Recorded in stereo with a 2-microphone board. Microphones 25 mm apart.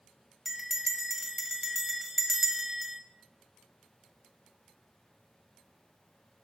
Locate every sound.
0.5 s a bell: centre (ahead or behind), 1.4 m